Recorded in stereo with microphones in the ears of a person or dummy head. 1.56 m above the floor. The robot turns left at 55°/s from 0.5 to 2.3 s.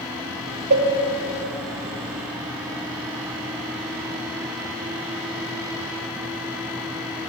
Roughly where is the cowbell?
Right.